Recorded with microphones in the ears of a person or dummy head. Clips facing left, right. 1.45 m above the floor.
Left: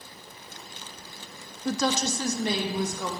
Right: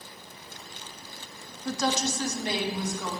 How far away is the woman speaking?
About 0.6 m.